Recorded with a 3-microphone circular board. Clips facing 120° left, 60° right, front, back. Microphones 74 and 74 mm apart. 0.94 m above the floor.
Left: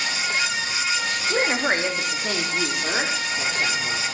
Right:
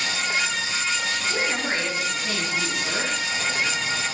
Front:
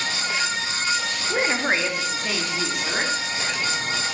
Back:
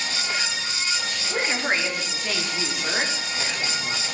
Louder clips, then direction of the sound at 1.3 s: Left 6 dB, front 2 dB; 70° left.